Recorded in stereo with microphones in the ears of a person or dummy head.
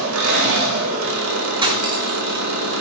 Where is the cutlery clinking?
20° right (ahead or behind), 1.6 m.